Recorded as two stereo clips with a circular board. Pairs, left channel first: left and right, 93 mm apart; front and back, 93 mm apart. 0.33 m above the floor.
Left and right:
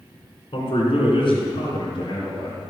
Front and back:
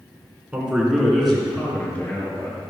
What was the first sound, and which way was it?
A man speaking, 105° left.